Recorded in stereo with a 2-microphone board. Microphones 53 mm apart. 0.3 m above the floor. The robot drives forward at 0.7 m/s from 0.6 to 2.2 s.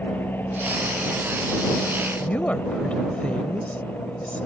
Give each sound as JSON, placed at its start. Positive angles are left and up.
{"t": 0.0, "sound": "an aircraft", "side_deg": 35}
{"t": 2.2, "sound": "a woman speaking", "side_deg": 25}